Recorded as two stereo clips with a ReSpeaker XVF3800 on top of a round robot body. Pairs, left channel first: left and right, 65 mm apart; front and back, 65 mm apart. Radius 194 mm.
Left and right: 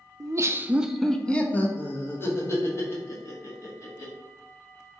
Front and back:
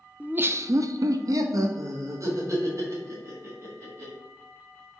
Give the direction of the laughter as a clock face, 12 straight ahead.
4 o'clock.